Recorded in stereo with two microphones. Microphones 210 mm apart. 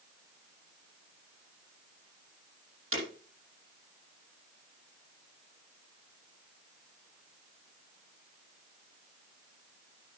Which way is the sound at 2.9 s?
80° right.